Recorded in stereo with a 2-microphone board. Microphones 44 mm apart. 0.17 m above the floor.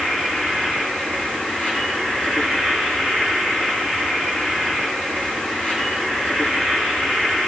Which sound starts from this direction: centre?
An insect, at 0.0 s.